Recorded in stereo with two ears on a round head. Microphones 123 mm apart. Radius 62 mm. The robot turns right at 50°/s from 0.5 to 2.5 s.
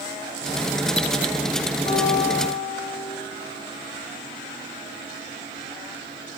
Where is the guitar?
40° left, 8.5 m; by 3.1 s 70° left, 8.5 m.